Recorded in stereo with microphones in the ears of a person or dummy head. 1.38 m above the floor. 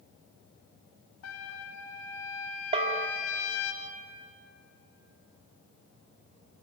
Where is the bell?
30° right (ahead or behind), 2 m.